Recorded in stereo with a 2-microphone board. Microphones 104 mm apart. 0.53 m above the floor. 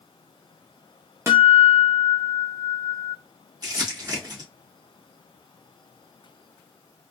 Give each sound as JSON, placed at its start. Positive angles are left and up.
{"t": 1.3, "sound": "a guitar", "side_deg": -25, "distance_m": 1.1}
{"t": 3.6, "sound": "crumpling", "side_deg": -35, "distance_m": 1.5}